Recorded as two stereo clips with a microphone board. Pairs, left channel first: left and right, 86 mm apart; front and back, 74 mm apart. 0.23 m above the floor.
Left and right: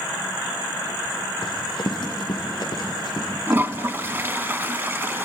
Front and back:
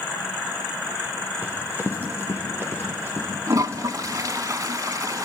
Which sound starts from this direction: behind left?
Running footsteps, at 1.4 s.